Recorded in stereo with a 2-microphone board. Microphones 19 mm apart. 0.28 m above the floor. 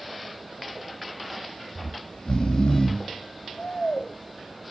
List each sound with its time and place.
1.8 s snoring: 65° left (ahead or behind), 0.7 m